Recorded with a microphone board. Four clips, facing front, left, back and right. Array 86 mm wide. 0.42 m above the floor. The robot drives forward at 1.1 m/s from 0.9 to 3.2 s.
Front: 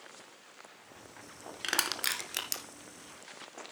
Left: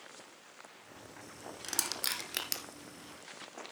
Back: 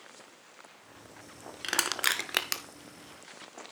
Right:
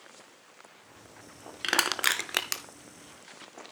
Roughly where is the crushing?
Right.